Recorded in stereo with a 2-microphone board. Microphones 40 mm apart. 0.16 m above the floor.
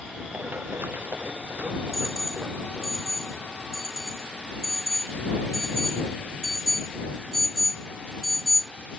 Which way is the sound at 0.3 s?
60° right (ahead or behind).